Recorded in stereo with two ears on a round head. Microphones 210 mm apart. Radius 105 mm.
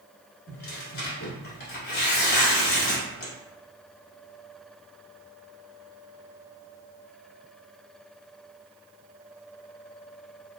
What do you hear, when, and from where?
0.5 s tearing paper: 45° left (ahead or behind), 1.1 m